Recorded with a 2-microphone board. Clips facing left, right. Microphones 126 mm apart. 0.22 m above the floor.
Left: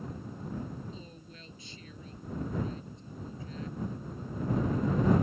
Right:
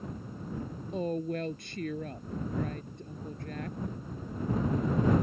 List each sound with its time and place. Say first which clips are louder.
0.9 s a woman speaking: right 17 dB; 60° right (ahead or behind)